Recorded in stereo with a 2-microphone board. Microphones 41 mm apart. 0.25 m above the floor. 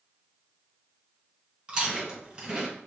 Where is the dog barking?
I don't hear a dog barking.